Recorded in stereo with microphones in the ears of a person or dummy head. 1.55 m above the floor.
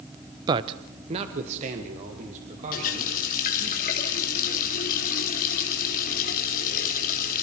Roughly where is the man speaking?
Right.